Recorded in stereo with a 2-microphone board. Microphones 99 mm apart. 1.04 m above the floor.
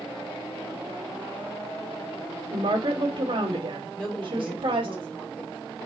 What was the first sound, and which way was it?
A woman speaking, 60° right (ahead or behind).